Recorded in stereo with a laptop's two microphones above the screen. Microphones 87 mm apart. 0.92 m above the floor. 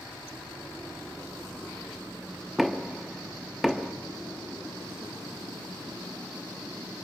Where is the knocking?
Centre (ahead or behind), 0.8 m.